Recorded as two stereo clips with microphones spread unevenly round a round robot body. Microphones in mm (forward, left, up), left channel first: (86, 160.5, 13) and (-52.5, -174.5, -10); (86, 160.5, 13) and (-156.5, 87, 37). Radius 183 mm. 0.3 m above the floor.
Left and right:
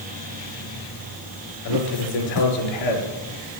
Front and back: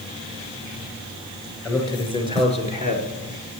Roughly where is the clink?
I don't hear a clink.